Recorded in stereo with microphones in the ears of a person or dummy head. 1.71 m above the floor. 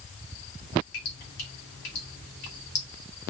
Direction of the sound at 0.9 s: 50° left (ahead or behind).